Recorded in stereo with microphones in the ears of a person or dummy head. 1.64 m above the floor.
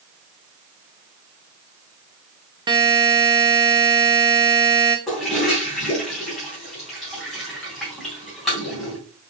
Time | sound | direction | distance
2.7 | a buzzer | 25° right (ahead or behind) | 0.9 m
5.1 | a toilet flushing | centre (ahead or behind) | 3 m